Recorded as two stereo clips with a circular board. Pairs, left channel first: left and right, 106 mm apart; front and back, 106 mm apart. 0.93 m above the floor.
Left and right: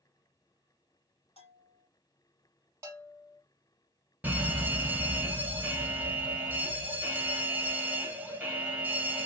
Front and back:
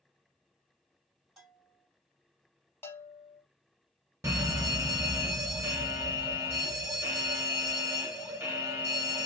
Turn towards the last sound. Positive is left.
turn(degrees=-150)